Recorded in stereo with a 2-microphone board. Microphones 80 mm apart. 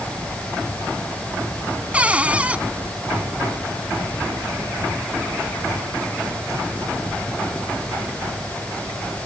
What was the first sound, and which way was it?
A cupboard door, 15° right (ahead or behind).